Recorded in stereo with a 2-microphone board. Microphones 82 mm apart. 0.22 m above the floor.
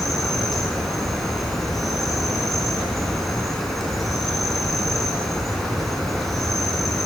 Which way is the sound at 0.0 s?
5° left (ahead or behind).